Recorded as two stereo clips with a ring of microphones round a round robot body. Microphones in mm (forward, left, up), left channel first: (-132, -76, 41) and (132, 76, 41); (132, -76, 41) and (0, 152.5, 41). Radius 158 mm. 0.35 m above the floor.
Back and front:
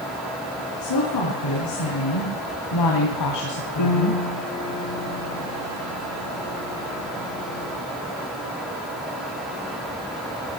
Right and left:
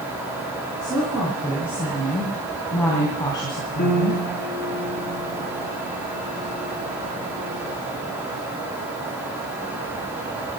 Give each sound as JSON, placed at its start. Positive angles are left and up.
{"t": 0.8, "sound": "a woman speaking", "azimuth_deg": -160, "distance_m": 5.0}
{"t": 3.8, "sound": "a piano", "azimuth_deg": -120, "distance_m": 3.0}